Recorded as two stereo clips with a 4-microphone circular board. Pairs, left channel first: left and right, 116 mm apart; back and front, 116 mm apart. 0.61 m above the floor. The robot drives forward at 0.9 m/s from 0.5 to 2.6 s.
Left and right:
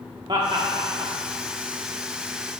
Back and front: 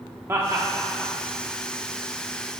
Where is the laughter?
60° right, 0.8 m; by 1.1 s 115° right, 0.8 m.